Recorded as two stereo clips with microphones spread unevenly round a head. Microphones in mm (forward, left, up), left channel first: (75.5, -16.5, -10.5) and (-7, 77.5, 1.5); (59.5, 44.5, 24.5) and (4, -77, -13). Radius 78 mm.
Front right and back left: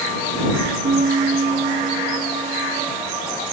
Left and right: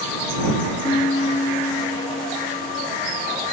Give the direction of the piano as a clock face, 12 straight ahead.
8 o'clock.